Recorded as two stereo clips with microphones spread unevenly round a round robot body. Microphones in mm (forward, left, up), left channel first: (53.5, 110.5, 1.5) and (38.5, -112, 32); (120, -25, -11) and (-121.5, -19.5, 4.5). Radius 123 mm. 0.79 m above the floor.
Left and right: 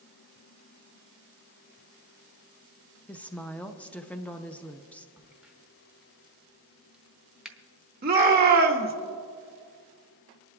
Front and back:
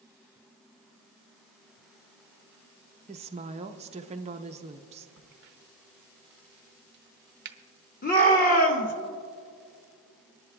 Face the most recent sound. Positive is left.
turn(degrees=-45)